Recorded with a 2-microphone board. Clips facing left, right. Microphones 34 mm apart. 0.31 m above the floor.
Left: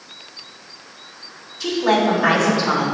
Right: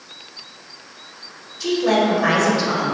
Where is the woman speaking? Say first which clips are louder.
Even; 5° left (ahead or behind), 1.4 m.